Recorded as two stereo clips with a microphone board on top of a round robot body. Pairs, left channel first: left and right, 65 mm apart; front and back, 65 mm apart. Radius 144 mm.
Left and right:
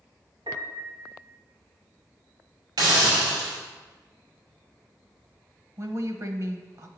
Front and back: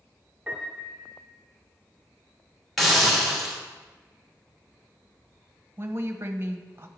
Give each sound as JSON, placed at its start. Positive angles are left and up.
{"t": 0.5, "sound": "a piano", "azimuth_deg": -105, "distance_m": 0.8}
{"t": 2.8, "sound": "a hiss", "azimuth_deg": -85, "distance_m": 2.5}
{"t": 5.8, "sound": "a woman speaking", "azimuth_deg": -125, "distance_m": 1.1}